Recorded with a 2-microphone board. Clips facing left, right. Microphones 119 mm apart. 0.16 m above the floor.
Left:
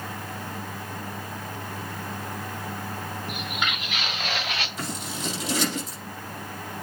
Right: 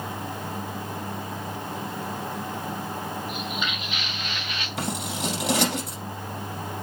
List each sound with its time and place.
3.3 s footsteps: 70° left (ahead or behind), 1.5 m
4.8 s scissors: 75° right (ahead or behind), 4.5 m